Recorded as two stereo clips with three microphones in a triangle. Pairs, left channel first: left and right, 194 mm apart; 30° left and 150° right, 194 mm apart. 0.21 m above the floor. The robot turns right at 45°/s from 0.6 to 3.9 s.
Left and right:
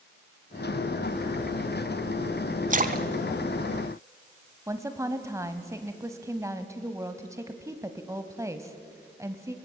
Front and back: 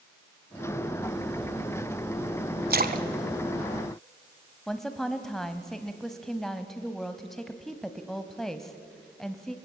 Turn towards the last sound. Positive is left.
turn(degrees=-55)